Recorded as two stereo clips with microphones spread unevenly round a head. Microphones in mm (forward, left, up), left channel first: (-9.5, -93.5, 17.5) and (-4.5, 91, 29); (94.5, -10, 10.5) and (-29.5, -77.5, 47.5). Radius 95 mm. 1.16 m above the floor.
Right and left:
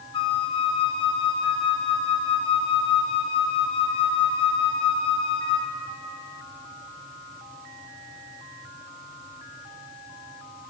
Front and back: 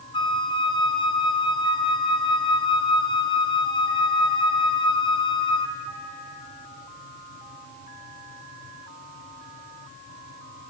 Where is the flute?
25° right, 0.6 m.